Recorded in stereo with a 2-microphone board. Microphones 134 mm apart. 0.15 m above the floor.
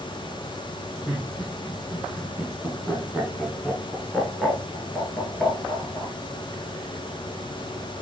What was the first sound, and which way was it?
Laughter, centre (ahead or behind).